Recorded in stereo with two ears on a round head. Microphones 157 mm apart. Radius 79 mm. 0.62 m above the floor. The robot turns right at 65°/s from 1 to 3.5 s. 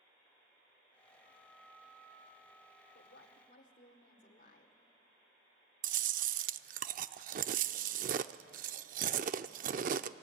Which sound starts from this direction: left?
A woman speaking, at 3.0 s.